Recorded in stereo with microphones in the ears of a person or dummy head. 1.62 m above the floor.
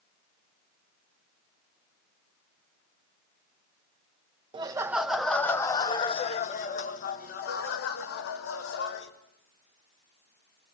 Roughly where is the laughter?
Right.